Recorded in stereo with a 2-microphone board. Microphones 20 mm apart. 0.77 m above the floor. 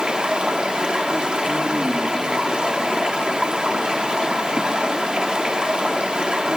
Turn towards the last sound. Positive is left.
turn(degrees=-55)  # may be behind; listen again after turning